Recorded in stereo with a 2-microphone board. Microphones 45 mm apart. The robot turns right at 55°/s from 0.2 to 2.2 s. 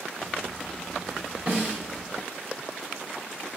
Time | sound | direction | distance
1.5 | a snare drum | 35° right (ahead or behind) | 6.5 m